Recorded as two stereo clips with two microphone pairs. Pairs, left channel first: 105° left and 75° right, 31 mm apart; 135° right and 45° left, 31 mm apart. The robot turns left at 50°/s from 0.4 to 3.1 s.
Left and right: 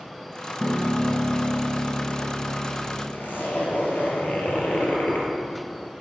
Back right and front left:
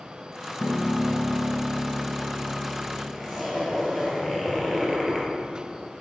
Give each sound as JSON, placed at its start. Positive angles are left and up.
{"t": 0.6, "sound": "a piano", "azimuth_deg": -135, "distance_m": 1.0}
{"t": 3.1, "sound": "a zipper", "azimuth_deg": 125, "distance_m": 1.7}